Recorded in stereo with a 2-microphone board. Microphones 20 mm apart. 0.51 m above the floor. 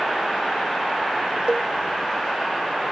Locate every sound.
1.5 s a cowbell: 80° right